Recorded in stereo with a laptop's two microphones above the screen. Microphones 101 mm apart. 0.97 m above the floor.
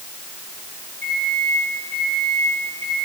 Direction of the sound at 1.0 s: 20° left (ahead or behind).